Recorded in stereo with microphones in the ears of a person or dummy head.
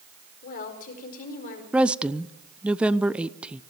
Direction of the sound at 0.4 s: 45° left (ahead or behind).